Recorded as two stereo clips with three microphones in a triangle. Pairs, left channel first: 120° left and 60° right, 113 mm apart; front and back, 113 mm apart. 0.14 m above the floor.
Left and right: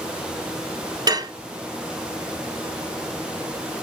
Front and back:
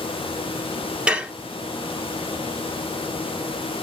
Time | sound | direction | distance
1.1 | dishes clattering | 100° right | 1.2 m